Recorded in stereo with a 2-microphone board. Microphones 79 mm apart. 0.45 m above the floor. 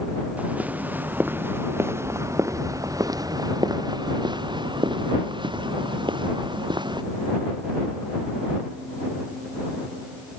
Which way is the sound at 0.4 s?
20° right (ahead or behind).